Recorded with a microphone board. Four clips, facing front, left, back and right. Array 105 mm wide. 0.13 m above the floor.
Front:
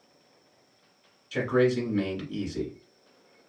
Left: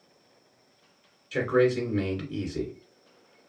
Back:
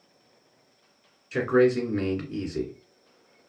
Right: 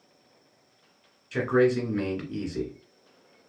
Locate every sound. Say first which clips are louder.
1.3 s a man speaking: right 1 dB, back 3 dB; 160° right, 1.6 m